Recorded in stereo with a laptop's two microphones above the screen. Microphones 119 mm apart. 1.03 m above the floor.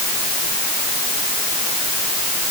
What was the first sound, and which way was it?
Only background noise.